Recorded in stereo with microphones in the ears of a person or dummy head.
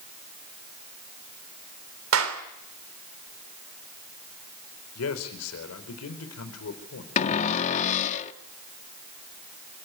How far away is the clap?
About 3 m.